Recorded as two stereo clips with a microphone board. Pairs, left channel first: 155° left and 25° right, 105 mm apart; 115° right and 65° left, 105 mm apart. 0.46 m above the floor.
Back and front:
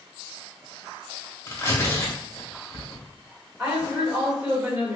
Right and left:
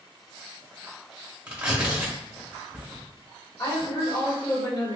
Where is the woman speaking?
105° right, 1.6 m.